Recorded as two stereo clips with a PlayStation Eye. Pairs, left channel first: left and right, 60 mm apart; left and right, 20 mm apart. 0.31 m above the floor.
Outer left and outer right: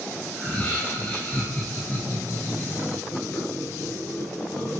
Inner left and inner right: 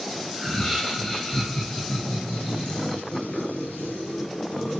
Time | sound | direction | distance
0.3 | laughter | 20° left (ahead or behind) | 5 m